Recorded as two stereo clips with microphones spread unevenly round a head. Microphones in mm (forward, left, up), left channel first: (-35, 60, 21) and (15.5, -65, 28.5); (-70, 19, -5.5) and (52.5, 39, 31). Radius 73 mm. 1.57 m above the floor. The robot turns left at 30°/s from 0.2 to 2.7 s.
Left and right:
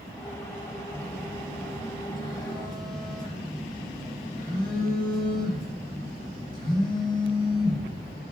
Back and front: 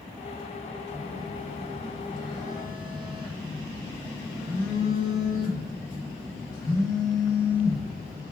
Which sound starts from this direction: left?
A phone buzzing, at 0.9 s.